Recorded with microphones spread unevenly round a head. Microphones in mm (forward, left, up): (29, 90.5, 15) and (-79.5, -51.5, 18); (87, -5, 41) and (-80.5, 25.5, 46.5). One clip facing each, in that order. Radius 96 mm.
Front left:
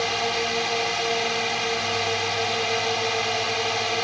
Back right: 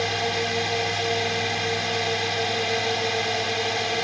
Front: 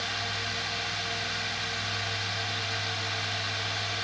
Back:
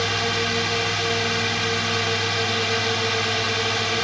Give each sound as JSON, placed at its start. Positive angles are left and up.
{"t": 0.0, "sound": "a drone", "azimuth_deg": 150}